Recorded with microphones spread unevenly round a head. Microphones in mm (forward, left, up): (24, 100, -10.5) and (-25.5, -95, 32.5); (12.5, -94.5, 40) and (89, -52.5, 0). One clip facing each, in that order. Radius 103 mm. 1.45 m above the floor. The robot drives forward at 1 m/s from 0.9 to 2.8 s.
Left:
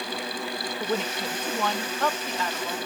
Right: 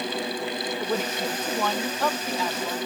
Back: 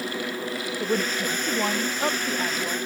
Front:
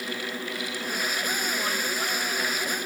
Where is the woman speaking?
170° left; by 2.8 s 175° left.